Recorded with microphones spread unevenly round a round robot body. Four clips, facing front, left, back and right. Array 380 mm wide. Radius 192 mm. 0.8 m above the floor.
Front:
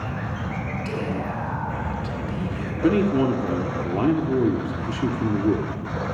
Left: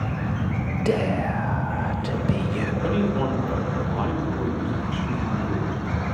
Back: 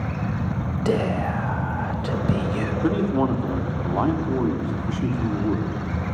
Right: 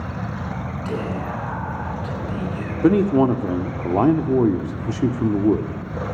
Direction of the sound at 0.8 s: 140° left.